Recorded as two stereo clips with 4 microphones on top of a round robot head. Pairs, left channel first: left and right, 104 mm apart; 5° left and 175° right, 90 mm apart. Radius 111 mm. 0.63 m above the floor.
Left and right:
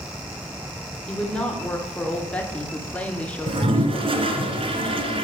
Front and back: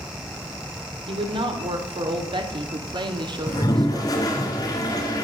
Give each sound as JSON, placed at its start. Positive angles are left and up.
{"t": 1.1, "sound": "a woman speaking", "azimuth_deg": 170, "distance_m": 3.0}
{"t": 3.5, "sound": "a toilet flushing", "azimuth_deg": -55, "distance_m": 1.8}